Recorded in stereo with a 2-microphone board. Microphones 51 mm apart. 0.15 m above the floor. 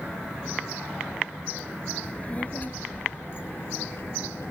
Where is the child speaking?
25° left (ahead or behind); by 4.5 s 65° left (ahead or behind).